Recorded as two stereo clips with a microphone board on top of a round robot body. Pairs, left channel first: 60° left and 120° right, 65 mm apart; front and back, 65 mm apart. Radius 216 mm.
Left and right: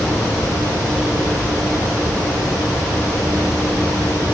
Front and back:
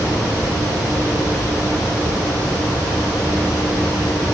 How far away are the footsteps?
No footsteps in this recording.